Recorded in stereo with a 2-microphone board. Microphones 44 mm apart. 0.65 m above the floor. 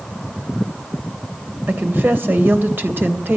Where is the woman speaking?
50° right (ahead or behind), 3 m.